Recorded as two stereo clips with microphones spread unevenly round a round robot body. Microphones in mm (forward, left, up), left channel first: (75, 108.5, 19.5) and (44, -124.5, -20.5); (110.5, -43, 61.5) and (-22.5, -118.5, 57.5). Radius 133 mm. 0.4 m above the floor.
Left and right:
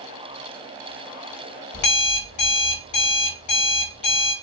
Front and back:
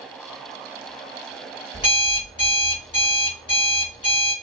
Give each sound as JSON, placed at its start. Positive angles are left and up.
{"t": 1.7, "sound": "an alarm clock", "azimuth_deg": 90, "distance_m": 1.2}